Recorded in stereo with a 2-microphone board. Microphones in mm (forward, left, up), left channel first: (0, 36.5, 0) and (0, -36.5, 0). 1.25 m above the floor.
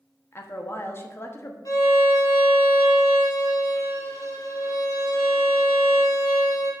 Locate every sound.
0.3 s a woman speaking: 35° left (ahead or behind), 1.0 m
1.6 s a violin: 55° left (ahead or behind), 1.7 m